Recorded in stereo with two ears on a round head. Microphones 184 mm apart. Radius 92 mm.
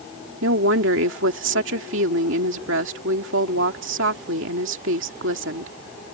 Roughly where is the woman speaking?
Right.